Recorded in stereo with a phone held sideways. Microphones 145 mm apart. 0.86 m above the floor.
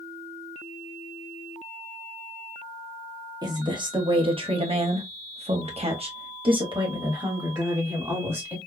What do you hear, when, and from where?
3.4 s a woman speaking: 30° right (ahead or behind), 1.5 m; by 8.6 s 15° right (ahead or behind), 2.0 m